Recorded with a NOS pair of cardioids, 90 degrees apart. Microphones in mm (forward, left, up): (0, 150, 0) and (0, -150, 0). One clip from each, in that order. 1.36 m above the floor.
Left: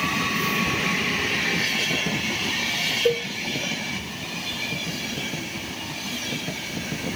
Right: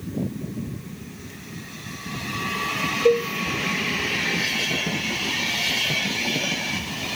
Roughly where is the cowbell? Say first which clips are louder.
Right 7 dB; ahead.